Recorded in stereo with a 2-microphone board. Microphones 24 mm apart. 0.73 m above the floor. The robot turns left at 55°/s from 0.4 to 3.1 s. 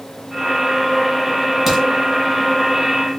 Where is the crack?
15° right (ahead or behind), 1.8 m; by 1.8 s 25° right (ahead or behind), 1.8 m.